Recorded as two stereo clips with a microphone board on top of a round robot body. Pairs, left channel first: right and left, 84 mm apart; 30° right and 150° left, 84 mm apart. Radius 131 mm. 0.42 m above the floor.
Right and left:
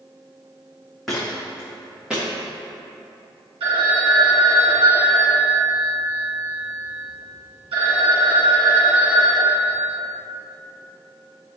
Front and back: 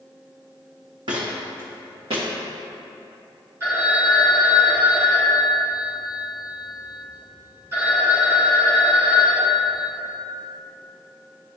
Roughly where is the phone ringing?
Left.